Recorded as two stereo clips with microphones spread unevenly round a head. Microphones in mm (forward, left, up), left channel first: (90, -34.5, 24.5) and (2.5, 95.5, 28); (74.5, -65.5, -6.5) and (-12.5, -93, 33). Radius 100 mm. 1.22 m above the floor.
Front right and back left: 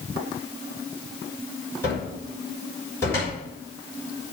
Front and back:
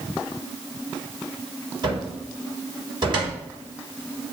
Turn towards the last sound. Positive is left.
turn(degrees=-135)